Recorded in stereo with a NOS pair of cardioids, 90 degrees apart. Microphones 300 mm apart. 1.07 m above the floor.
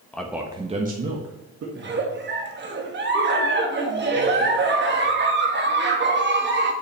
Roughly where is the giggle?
Ahead right.